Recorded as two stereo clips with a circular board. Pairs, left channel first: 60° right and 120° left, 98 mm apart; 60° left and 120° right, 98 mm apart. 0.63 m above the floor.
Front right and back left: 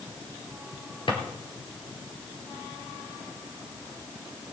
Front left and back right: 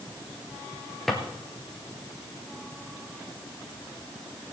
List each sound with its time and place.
1.1 s a drawer: 30° right, 2.5 m